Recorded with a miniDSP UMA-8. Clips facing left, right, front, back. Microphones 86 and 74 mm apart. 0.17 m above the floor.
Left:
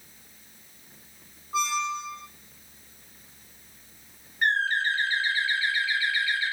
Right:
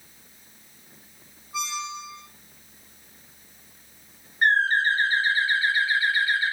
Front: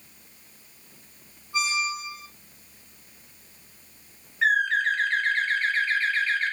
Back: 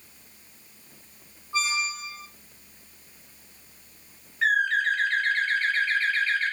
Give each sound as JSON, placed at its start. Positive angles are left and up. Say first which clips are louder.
{"t": 1.5, "sound": "a squeak", "louder": "left 5 dB, front 1 dB", "azimuth_deg": 130, "distance_m": 1.5}
{"t": 4.4, "sound": "a bird", "louder": "right 4 dB, front 1 dB", "azimuth_deg": -85, "distance_m": 1.3}